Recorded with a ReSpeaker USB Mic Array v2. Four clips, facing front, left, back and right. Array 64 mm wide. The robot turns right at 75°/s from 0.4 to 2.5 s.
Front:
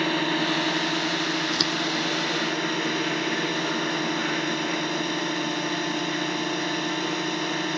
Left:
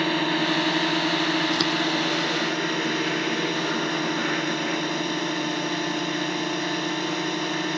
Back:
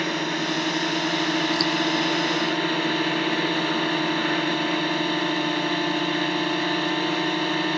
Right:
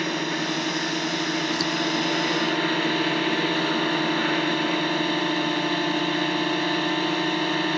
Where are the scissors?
60° left; by 1.7 s 75° left.